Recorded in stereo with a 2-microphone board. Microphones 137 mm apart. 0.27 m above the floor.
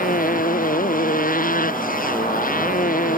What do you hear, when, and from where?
0.0 s a motorcycle: 70° left (ahead or behind)